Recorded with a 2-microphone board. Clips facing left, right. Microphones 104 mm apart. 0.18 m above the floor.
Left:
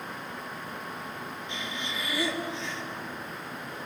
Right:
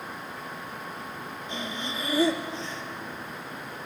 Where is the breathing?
40° right (ahead or behind), 2.0 m.